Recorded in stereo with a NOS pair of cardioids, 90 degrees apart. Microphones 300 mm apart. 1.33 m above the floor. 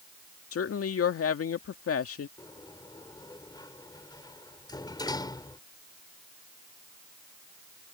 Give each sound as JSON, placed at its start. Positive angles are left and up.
{"t": 0.5, "sound": "a woman speaking", "azimuth_deg": 50}
{"t": 2.4, "sound": "a sliding door", "azimuth_deg": 15}